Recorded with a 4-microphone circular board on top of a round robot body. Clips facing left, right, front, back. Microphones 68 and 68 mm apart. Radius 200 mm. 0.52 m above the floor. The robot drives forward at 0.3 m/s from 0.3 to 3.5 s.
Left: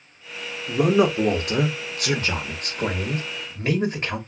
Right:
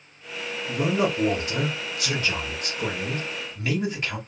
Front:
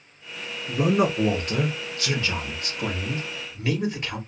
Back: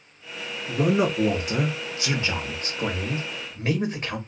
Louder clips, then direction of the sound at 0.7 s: Left 5 dB, even; 85° left.